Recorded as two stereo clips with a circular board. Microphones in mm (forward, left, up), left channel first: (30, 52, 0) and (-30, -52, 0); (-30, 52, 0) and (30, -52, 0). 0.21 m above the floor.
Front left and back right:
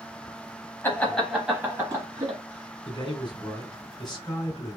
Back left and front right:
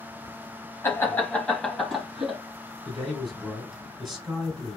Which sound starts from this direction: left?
Laughter, at 0.8 s.